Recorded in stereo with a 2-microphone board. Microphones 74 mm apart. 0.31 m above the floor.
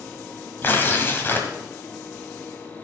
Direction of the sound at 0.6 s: 30° left (ahead or behind).